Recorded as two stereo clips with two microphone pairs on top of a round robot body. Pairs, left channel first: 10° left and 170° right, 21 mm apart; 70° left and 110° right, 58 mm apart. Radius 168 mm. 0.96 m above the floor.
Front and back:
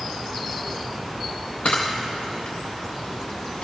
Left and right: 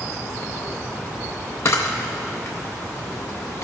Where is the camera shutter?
30° left, 0.5 m.